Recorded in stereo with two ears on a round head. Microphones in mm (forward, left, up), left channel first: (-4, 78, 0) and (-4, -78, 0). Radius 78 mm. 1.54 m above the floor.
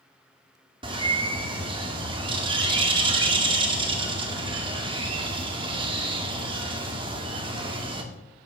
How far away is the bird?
About 1.9 m.